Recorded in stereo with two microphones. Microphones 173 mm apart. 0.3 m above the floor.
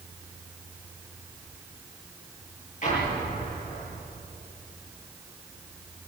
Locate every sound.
2.8 s an explosion: 45° left (ahead or behind), 8.5 m